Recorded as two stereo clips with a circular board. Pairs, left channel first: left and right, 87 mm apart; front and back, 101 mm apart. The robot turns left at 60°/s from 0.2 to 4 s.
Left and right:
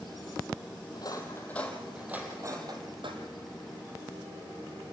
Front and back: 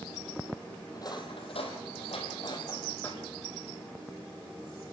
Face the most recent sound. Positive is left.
turn(degrees=-130)